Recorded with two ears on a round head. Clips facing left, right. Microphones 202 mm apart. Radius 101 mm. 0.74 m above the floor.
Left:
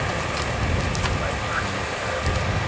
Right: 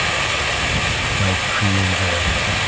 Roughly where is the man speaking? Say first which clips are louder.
Right 5 dB; right.